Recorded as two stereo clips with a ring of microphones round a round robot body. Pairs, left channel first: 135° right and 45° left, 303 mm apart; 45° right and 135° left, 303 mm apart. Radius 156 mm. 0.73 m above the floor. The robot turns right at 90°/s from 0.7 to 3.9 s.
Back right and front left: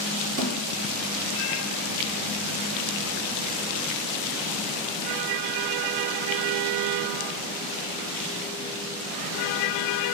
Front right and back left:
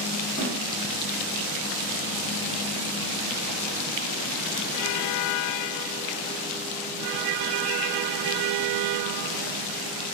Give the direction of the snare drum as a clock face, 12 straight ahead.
11 o'clock.